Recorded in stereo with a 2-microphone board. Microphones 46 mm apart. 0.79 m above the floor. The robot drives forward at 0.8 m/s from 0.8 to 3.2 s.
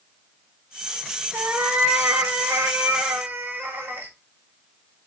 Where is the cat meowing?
55° right (ahead or behind), 1.2 m; by 4.1 s 50° right (ahead or behind), 1.2 m.